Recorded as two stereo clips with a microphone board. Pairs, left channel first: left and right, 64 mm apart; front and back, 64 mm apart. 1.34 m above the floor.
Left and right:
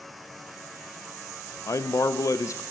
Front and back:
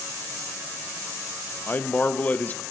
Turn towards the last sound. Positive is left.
turn(degrees=60)